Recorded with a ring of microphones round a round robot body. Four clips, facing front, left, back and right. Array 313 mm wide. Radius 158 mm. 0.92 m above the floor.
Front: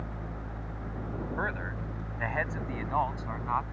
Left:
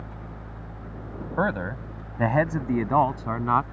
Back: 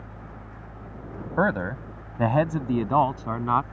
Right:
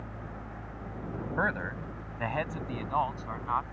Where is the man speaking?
155° left; by 3.6 s 130° left.